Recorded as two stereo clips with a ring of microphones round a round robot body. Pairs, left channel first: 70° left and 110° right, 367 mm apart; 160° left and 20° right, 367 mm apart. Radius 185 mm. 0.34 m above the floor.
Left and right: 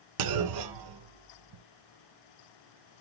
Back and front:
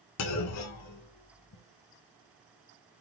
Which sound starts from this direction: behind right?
A clunk, at 0.2 s.